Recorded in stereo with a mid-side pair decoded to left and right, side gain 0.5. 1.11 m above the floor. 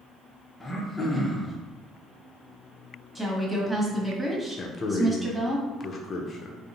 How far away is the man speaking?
About 0.6 m.